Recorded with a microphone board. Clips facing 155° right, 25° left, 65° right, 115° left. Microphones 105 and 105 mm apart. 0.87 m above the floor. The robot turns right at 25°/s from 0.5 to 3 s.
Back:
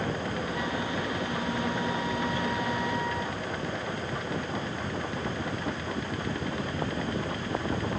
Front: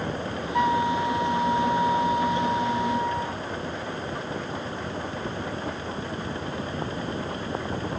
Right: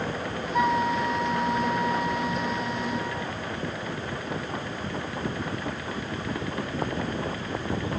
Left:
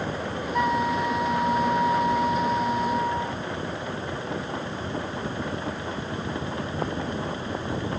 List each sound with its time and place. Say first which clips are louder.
0.5 s a flute: front 8 dB, even; 15° left; by 3.4 s 80° left